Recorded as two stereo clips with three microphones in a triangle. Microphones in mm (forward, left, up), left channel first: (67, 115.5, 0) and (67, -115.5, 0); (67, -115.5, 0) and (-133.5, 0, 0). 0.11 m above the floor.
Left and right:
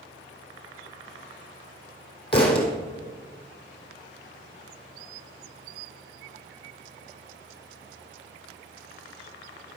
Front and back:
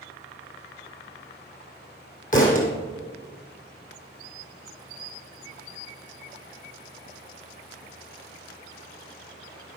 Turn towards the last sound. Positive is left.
turn(degrees=25)